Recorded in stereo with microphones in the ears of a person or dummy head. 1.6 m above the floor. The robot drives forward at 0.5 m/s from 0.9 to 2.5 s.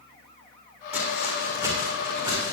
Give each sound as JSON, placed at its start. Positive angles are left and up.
{"t": 0.9, "sound": "footsteps", "side_deg": -10, "distance_m": 5.0}